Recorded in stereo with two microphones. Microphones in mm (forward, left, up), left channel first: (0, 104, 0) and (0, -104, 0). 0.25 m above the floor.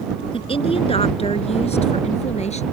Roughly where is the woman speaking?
Left.